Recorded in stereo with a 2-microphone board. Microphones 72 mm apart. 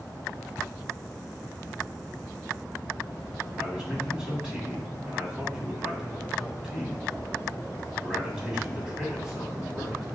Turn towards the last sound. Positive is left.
turn(degrees=-10)  # may be behind; listen again after turning